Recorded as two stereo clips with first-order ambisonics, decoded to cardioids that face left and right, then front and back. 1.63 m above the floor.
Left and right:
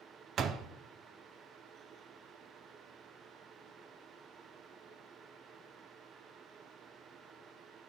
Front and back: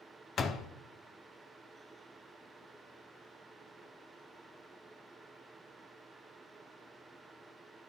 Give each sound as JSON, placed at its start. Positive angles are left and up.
{"t": 0.4, "sound": "a door slam", "azimuth_deg": -50, "distance_m": 0.6}